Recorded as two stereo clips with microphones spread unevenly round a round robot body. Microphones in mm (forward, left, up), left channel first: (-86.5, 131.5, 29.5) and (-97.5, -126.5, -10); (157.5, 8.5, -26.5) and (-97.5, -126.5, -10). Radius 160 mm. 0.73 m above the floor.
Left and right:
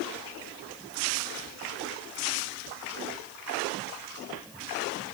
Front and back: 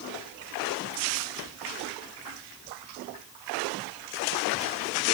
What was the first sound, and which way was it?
Only background noise.